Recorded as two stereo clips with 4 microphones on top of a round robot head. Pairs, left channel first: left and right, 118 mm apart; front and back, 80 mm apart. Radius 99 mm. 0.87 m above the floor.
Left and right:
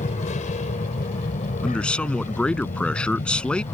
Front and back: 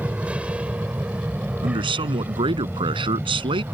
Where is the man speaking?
170° left.